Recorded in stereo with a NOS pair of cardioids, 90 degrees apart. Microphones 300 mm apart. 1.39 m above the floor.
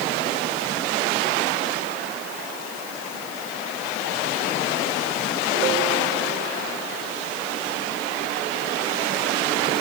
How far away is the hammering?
I don't hear hammering.